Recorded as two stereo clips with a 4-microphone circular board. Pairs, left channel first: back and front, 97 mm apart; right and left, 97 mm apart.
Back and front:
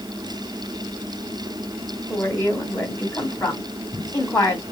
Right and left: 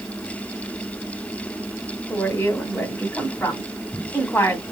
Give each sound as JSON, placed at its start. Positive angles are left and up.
{"t": 2.1, "sound": "a woman speaking", "azimuth_deg": -140, "distance_m": 1.7}